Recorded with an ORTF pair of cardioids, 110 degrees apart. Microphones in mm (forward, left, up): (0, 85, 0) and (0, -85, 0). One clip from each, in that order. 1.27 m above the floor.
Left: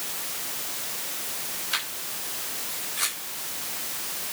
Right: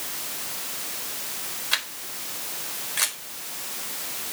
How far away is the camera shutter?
About 4 m.